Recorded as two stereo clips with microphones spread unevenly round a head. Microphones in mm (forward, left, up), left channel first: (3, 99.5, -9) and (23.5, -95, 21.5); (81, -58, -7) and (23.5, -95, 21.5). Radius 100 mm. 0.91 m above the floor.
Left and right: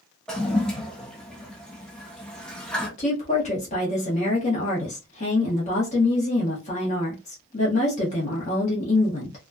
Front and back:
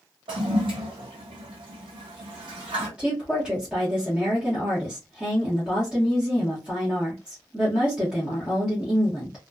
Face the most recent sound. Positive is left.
turn(degrees=115)